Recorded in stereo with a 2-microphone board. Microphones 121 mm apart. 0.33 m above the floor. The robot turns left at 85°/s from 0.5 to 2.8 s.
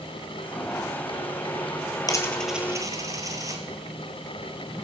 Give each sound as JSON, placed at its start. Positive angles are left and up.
{"t": 2.1, "sound": "a dropped coin", "side_deg": 35, "distance_m": 1.4}